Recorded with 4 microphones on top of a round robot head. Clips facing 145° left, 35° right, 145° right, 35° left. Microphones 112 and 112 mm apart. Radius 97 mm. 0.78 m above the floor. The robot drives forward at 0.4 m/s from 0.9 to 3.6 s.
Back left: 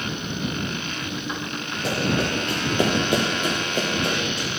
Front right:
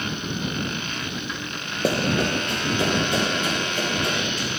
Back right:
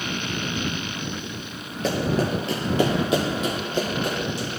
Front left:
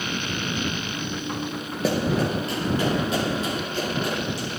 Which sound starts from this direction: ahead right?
Running footsteps, at 1.8 s.